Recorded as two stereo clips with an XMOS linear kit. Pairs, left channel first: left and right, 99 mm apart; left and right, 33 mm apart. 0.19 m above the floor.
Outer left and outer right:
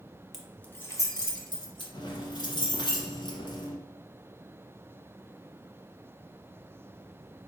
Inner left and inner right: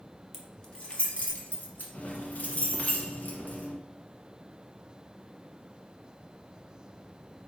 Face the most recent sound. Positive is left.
turn(degrees=50)  # may be behind; listen again after turning